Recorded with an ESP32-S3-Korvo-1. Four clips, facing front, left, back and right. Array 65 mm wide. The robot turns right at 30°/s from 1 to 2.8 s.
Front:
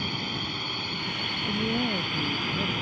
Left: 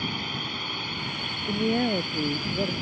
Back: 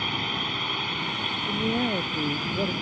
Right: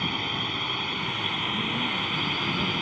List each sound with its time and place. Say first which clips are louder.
0.0 s a drone: right 2 dB, back 3 dB; 145° right; by 2.8 s 85° right
1.5 s a man speaking: left 9 dB, back 2 dB; 95° left; by 2.7 s 135° left